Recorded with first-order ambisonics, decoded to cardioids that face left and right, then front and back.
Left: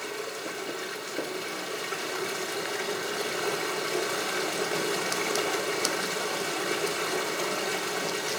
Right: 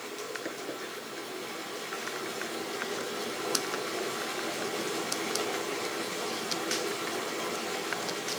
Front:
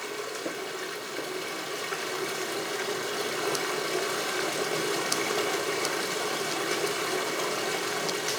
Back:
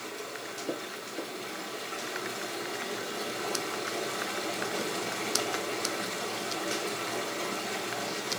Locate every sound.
0.0 s running water: 30° left, 3.5 m